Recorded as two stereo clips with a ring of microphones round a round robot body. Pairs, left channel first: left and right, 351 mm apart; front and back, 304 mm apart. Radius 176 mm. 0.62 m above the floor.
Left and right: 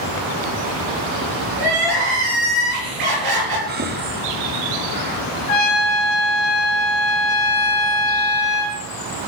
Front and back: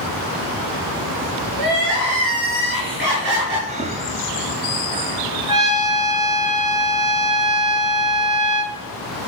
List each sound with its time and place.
1.6 s crying: 120° right, 6 m
3.7 s breathing: 130° right, 0.9 m
5.5 s a trumpet: 100° left, 3.5 m